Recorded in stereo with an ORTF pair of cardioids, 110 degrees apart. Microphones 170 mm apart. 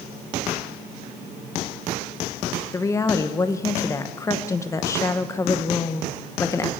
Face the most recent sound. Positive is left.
turn(degrees=20)